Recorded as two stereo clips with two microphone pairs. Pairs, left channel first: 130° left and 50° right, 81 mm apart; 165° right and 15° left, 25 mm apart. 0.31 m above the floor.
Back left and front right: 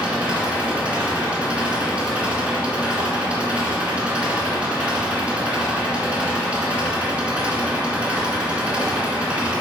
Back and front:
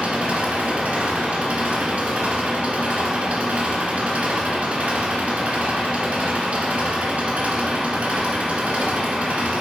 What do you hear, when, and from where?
0.0 s an engine running: 30° left, 1.7 m